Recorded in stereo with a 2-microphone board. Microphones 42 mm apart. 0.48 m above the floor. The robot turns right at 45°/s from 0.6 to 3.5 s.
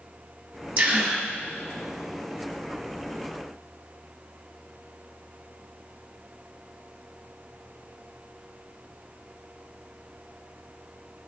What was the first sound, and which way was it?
A gasp, 55° right (ahead or behind).